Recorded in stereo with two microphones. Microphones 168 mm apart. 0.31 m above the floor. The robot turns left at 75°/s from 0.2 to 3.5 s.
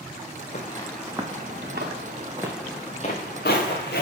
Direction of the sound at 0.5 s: 45° left (ahead or behind).